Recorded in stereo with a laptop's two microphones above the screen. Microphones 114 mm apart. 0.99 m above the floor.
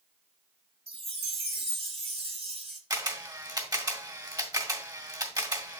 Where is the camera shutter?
35° right (ahead or behind), 1.8 m.